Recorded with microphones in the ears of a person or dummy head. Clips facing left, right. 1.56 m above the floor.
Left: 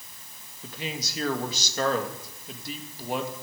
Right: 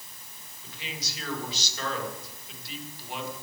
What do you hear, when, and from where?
0.6 s a man speaking: 50° left (ahead or behind), 2 m